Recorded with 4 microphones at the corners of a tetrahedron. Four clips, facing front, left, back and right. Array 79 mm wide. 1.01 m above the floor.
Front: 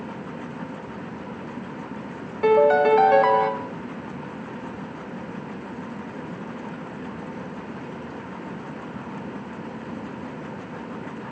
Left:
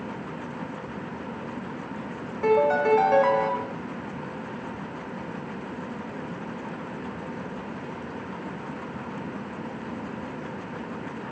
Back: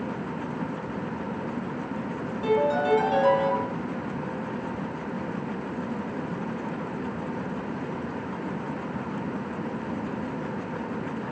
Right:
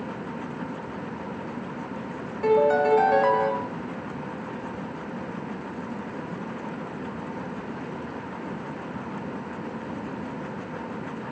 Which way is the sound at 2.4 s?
15° left.